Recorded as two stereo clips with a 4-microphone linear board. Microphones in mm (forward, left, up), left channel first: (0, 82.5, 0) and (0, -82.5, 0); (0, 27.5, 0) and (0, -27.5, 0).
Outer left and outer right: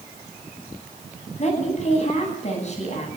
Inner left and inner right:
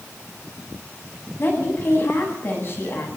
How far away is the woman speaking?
About 9 m.